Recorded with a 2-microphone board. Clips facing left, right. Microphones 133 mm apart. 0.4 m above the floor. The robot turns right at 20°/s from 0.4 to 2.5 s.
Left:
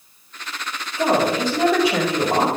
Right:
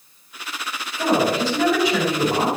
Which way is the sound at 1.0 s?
30° left.